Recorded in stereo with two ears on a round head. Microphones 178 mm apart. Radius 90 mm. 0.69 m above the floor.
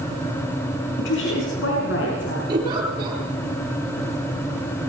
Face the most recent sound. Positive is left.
turn(degrees=-25)  # may be behind; listen again after turning